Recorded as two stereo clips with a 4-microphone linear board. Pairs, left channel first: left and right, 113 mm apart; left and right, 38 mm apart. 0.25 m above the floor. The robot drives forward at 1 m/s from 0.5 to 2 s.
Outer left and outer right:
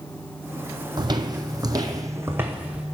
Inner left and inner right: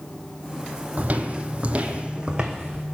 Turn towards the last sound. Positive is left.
turn(degrees=-10)  # may be behind; listen again after turning